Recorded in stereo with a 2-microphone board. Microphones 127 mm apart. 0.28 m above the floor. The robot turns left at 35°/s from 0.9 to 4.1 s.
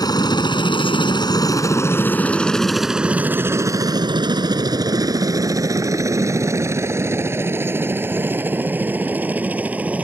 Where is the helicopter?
30° left (ahead or behind); by 10.0 s 10° right (ahead or behind).